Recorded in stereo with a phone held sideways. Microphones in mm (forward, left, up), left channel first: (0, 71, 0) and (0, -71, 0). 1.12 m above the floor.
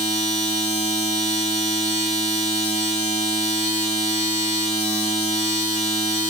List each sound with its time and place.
0.0 s a machine running: 55° left (ahead or behind), 2 m